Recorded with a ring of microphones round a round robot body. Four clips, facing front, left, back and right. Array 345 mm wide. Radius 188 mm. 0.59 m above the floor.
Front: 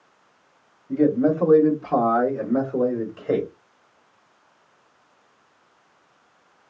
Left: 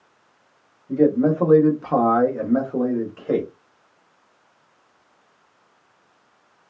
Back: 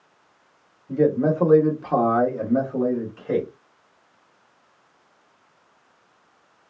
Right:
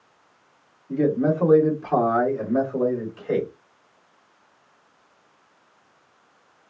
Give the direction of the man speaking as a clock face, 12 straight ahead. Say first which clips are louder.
Left 4 dB, front 1 dB; 7 o'clock.